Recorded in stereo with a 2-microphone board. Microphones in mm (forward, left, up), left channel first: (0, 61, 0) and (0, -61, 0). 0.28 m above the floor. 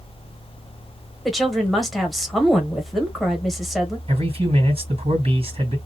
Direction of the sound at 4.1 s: 55° right (ahead or behind).